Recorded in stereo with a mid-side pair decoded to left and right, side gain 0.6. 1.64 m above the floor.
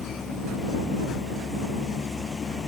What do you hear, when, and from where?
0.0 s a vehicle: 30° left